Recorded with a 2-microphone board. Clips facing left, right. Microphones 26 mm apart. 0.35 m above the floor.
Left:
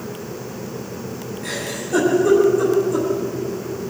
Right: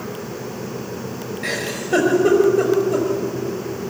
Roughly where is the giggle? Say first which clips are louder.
Right 3 dB; right.